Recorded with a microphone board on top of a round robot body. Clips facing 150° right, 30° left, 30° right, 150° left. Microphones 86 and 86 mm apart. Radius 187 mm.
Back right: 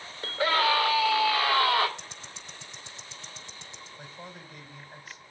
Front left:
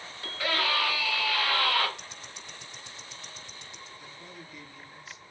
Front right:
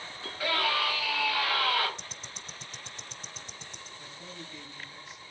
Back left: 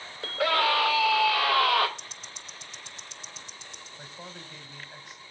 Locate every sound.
0.2 s a scream: 155° left, 5 m; by 1.9 s 145° left, 4.5 m
2.0 s ticking: 80° right, 0.6 m
4.0 s a man speaking: 165° left, 4 m